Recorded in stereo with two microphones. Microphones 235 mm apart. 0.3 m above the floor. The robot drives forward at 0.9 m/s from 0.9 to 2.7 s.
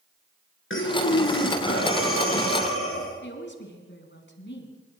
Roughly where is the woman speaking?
Left.